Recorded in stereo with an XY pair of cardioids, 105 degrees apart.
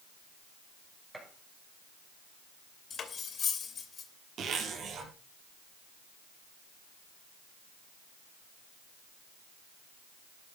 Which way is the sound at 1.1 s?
10° right.